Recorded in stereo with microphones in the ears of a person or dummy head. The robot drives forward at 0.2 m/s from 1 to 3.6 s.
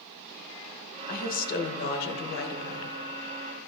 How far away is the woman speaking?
About 1.1 m.